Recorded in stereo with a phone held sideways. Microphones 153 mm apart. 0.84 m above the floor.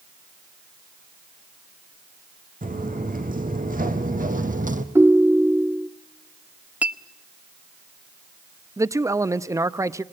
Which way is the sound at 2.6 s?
65° right (ahead or behind).